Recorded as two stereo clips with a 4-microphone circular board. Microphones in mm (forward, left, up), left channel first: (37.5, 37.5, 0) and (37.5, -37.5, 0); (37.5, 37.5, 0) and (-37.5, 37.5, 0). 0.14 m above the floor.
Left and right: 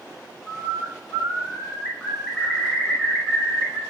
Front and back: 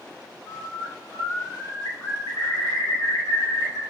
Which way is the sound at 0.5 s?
10° left.